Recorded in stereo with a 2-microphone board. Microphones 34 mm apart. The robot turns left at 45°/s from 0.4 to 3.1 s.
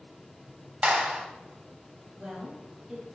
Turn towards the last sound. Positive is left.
turn(degrees=180)